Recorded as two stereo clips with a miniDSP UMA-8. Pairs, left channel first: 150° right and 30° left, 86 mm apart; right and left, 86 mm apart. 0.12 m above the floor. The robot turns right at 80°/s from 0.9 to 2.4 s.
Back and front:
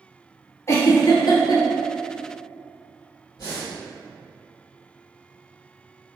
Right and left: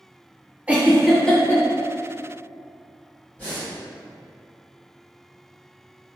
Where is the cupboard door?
No cupboard door in this recording.